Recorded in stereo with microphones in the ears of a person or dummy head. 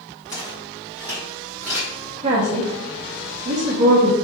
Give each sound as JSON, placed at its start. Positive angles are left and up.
{"t": 0.3, "sound": "footsteps", "side_deg": 20, "distance_m": 1.9}
{"t": 2.2, "sound": "a woman speaking", "side_deg": -35, "distance_m": 0.5}